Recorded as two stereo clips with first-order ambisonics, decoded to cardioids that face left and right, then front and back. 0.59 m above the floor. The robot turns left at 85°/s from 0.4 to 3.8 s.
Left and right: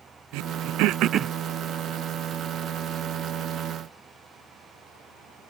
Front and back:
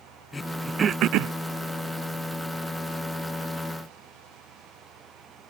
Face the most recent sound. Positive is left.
turn(degrees=-10)